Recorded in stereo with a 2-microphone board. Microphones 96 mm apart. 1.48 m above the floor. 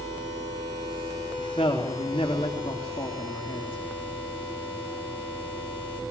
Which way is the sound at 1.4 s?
85° left.